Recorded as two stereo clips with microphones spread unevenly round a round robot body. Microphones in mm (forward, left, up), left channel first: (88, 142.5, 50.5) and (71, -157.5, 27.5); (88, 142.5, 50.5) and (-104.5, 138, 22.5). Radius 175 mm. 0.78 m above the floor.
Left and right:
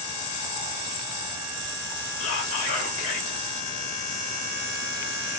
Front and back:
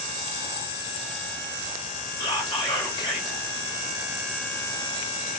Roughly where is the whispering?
Left.